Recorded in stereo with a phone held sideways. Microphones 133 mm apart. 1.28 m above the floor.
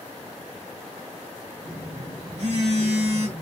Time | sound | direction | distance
1.6 | a phone buzzing | 60° right (ahead or behind) | 2 m